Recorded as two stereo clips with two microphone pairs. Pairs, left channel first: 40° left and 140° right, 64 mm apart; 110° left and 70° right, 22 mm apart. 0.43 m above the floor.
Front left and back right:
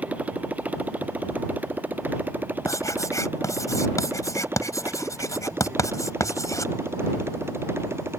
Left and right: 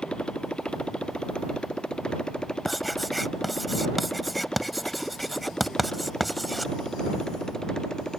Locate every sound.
0.0 s a motorcycle: 150° left; by 8.2 s 170° left
2.6 s writing: 20° left